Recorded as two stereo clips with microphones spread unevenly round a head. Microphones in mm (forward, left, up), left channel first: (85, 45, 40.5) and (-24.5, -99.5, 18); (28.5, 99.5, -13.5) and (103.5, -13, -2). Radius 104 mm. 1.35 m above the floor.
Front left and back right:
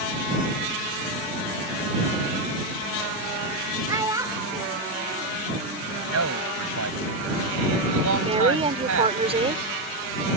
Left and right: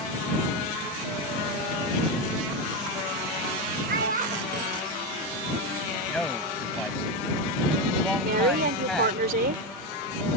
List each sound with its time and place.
3.9 s a child speaking: 55° right
6.1 s a man speaking: 150° right
8.2 s a woman speaking: 65° right